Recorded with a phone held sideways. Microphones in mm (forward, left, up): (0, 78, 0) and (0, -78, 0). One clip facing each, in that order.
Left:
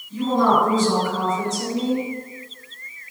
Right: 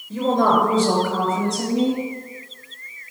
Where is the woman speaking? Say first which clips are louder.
Right 1 dB; 80° right, 3.5 m; by 2.0 s 75° right (ahead or behind), 5.5 m.